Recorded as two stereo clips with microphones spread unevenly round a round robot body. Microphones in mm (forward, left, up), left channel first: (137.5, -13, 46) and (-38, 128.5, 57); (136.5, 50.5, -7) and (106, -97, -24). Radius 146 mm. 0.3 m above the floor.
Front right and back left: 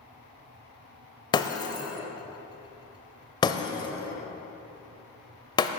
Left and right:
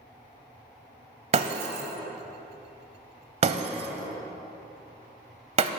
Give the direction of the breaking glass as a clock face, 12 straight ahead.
3 o'clock.